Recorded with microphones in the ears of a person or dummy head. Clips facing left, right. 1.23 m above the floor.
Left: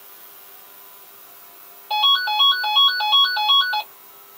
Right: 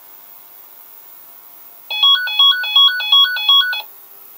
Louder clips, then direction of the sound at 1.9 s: Left 6 dB; 30° right (ahead or behind).